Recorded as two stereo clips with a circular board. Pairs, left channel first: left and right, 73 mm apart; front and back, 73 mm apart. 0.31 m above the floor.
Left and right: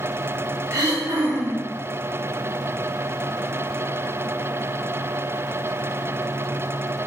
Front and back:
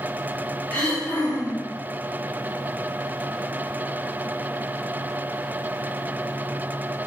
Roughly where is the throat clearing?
Ahead right.